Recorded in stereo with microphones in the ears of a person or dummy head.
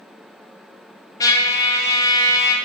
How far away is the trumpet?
About 0.9 m.